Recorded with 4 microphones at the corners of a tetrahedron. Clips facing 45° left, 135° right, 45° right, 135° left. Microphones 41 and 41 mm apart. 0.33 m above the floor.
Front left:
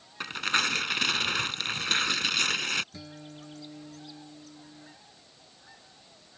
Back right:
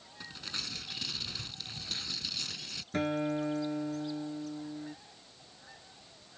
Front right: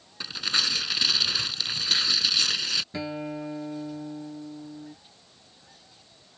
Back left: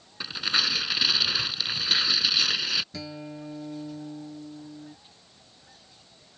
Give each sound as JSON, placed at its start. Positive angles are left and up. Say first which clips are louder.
{"t": 0.2, "sound": "tearing paper", "louder": "front left 15 dB, back left 1 dB", "azimuth_deg": 55}
{"t": 2.9, "sound": "a guitar", "louder": "back right 14 dB, front right 6 dB", "azimuth_deg": -105}